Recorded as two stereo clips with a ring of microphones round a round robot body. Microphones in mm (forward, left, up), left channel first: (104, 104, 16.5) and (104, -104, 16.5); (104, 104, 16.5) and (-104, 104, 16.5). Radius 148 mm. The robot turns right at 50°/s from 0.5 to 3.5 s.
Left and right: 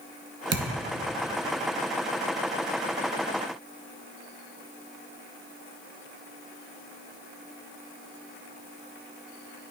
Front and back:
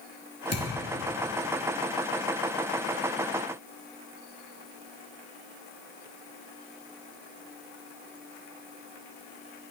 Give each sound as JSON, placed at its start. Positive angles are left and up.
{"t": 0.5, "sound": "a thud", "azimuth_deg": -60, "distance_m": 1.5}